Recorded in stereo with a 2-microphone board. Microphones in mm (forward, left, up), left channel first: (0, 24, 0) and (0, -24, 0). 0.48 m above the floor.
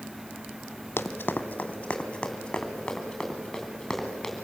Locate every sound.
1.0 s running footsteps: 50° left (ahead or behind), 1.2 m; by 4.3 s 5° left (ahead or behind), 4.5 m